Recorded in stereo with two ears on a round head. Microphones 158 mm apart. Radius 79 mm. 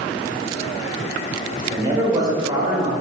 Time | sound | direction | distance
1.7 | a man speaking | 25° right (ahead or behind) | 3 m